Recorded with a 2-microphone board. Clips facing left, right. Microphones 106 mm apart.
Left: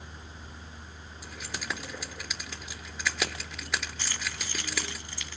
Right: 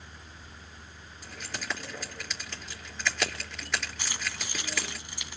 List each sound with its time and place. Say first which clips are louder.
1.2 s keys jangling: even; 5° left (ahead or behind), 4.5 m
4.0 s keys jangling: even; 15° right (ahead or behind), 2.5 m